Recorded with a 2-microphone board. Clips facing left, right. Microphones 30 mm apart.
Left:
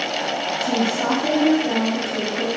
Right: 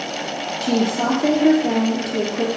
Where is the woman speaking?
55° right (ahead or behind), 2 m.